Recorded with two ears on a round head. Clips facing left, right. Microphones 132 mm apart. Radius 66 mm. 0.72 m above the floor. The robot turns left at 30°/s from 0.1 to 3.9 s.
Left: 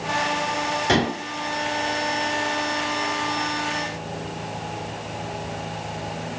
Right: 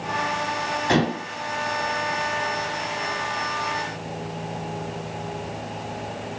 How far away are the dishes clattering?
About 6 m.